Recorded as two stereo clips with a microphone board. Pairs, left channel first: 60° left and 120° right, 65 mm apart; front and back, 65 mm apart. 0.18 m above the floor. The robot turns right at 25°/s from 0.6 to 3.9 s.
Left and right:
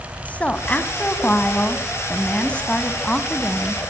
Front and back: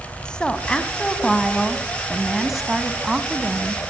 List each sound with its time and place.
0.2 s a woman speaking: 50° left, 1.2 m; by 3.8 s 130° left, 1.2 m